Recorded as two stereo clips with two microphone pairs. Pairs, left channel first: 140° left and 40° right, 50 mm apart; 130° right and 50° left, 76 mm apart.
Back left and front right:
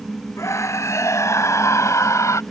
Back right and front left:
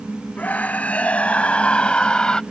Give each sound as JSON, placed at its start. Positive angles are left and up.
{"t": 0.4, "sound": "a scream", "azimuth_deg": 160}